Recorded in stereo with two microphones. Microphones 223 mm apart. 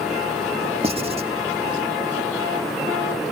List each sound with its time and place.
0.8 s writing: 25° right (ahead or behind), 0.7 m